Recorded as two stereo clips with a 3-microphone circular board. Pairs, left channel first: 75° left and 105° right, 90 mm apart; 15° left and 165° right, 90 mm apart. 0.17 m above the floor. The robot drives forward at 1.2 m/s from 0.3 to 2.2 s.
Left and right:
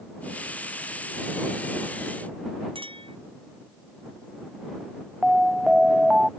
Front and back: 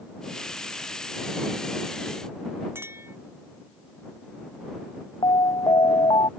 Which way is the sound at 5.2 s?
20° right.